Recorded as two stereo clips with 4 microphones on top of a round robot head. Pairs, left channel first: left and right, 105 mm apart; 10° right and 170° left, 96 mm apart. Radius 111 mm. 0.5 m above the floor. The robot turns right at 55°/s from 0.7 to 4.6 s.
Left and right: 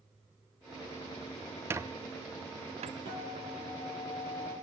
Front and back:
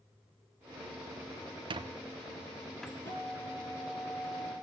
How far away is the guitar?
About 9 m.